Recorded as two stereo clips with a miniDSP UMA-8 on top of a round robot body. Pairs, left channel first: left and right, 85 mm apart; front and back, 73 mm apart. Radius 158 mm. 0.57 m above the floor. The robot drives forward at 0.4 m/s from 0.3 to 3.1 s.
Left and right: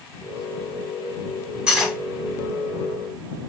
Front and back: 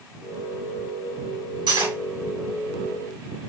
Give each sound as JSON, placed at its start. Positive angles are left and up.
{"t": 1.7, "sound": "cutlery clinking", "azimuth_deg": -170, "distance_m": 2.5}